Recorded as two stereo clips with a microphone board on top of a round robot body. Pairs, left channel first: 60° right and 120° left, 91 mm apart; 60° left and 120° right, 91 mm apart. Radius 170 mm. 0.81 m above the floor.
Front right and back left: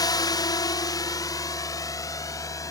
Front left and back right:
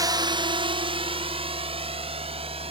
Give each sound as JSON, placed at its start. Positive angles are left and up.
{"t": 0.0, "sound": "a drone", "azimuth_deg": -85}